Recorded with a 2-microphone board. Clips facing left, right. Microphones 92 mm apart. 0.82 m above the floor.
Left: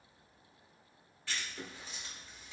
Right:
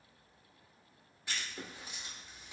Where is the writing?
15° right (ahead or behind), 1.0 m.